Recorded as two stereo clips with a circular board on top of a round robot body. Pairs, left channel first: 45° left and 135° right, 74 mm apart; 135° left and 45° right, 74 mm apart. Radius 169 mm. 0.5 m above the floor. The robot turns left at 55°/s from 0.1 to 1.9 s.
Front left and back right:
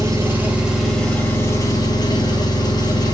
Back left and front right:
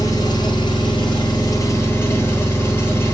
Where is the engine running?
175° left, 0.9 m; by 3.1 s 75° left, 0.9 m.